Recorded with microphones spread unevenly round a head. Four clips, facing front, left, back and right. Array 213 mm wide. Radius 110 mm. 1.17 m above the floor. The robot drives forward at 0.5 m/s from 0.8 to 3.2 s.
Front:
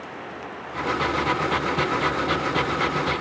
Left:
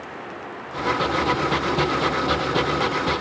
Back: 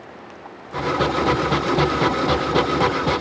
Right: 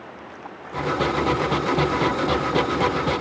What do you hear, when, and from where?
Only background noise.